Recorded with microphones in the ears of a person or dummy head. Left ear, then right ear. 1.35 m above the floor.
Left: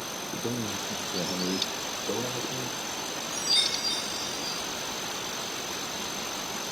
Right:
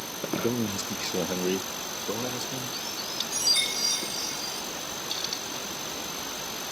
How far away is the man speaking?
About 0.6 m.